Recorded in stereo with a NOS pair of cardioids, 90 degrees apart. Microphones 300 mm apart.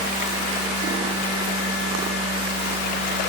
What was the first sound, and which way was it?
A machine running, 55° right.